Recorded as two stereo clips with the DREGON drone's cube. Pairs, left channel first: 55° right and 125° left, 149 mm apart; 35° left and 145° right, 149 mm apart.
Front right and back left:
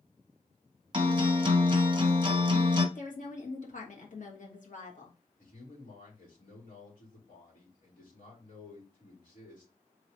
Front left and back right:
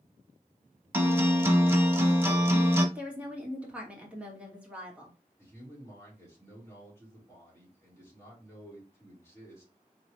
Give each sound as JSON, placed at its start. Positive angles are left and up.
{"t": 0.9, "sound": "a guitar", "azimuth_deg": 150, "distance_m": 0.8}
{"t": 3.0, "sound": "a woman speaking", "azimuth_deg": -65, "distance_m": 1.4}
{"t": 5.4, "sound": "a man speaking", "azimuth_deg": -35, "distance_m": 3.0}